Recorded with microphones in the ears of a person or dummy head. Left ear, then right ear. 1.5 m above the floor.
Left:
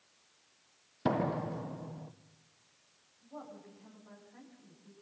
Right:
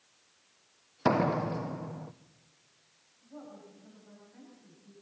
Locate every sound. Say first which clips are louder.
1.1 s a door slam: right 5 dB; 20° right (ahead or behind), 0.6 m
3.2 s a woman speaking: left 1 dB; 40° left (ahead or behind), 8 m